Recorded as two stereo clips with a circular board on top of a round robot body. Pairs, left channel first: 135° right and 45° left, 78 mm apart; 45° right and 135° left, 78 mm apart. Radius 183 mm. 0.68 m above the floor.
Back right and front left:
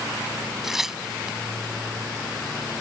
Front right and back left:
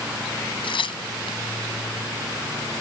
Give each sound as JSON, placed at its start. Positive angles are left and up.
{"t": 0.6, "sound": "tearing paper", "azimuth_deg": -40}